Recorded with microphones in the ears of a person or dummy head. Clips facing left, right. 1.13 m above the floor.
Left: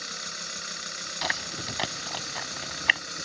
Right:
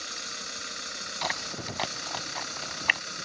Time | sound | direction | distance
1.2 | chewing | 10° left (ahead or behind) | ?